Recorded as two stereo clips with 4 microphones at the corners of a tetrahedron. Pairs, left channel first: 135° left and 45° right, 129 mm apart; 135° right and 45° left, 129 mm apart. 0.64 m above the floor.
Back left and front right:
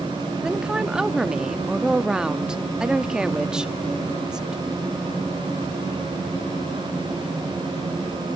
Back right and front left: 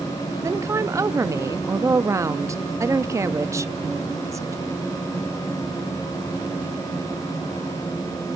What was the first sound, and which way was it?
A woman speaking, 30° left.